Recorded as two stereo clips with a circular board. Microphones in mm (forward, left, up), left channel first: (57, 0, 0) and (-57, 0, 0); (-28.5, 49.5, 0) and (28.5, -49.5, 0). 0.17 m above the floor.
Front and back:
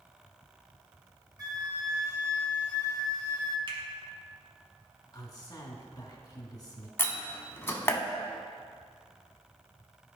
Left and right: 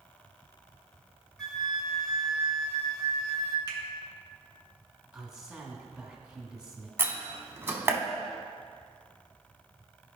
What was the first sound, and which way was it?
A flute, 160° right.